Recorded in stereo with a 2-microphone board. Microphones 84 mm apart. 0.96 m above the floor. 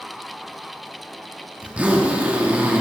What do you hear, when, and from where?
1.6 s a zipper: 15° right (ahead or behind), 1.1 m